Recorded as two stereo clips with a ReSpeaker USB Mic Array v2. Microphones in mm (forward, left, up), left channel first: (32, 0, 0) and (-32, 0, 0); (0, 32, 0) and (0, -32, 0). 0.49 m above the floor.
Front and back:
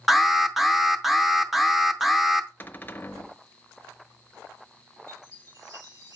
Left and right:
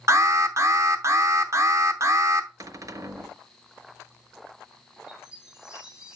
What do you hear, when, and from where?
0.1 s an alarm: 95° right, 0.7 m
2.6 s a cupboard door: 60° right, 0.5 m
5.1 s a chime: 165° right, 2.5 m